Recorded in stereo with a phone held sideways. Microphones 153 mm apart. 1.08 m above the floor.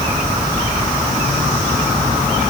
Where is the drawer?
No drawer in this recording.